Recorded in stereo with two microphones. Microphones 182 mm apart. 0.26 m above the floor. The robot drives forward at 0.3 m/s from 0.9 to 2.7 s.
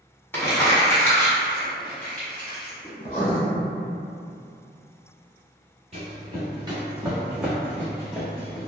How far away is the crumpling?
About 1.1 m.